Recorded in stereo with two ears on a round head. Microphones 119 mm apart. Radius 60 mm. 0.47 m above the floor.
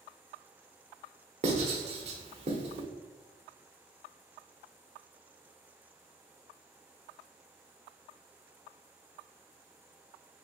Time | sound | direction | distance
1.4 | writing | 50° right (ahead or behind) | 0.9 m